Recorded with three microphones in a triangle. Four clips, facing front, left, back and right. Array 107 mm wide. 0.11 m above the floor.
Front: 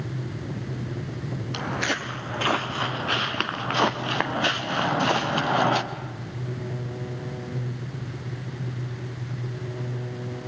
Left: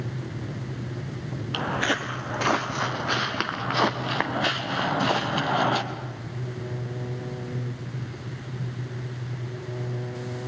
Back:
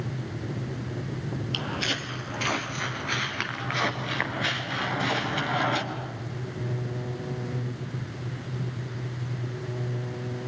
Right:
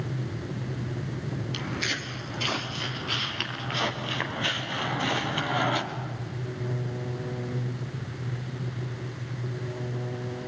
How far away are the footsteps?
About 1.5 m.